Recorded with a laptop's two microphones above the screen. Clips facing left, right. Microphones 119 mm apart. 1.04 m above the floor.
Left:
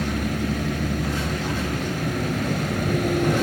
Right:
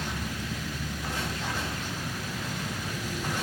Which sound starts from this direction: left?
A vehicle, at 0.0 s.